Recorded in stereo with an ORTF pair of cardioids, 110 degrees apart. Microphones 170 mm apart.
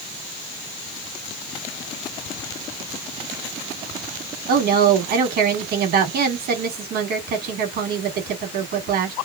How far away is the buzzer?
No buzzer in this recording.